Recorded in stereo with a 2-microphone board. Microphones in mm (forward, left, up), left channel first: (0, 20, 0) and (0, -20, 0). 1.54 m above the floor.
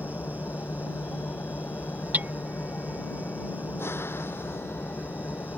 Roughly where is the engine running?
Left.